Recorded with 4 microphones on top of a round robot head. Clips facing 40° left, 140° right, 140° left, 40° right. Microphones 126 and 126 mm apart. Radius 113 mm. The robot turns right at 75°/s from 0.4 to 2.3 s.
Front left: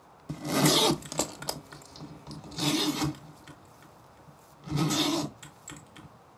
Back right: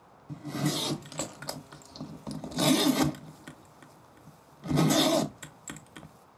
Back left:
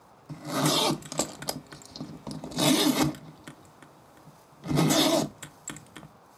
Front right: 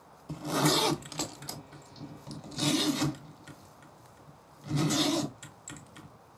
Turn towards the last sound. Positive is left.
turn(degrees=175)